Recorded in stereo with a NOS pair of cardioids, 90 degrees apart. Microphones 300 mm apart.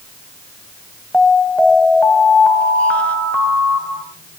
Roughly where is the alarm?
Ahead.